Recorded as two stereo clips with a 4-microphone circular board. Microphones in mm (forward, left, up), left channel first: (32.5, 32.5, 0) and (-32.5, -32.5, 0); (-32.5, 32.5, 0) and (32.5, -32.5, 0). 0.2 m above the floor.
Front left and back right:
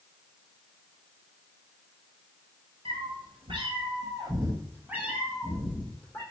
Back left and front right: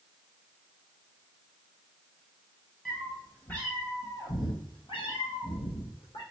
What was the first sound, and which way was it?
A cat meowing, 140° right.